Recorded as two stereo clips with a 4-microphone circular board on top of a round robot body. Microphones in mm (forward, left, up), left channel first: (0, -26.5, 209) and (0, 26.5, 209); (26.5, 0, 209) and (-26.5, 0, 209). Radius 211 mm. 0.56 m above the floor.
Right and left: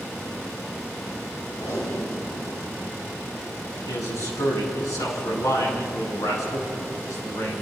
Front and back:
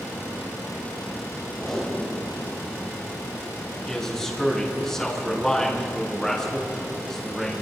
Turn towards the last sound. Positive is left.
turn(degrees=-80)